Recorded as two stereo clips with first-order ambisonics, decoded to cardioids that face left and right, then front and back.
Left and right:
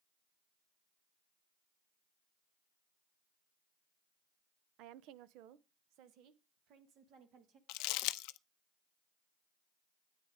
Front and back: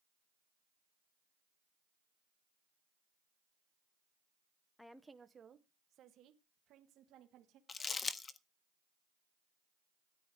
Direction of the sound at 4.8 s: 80° right.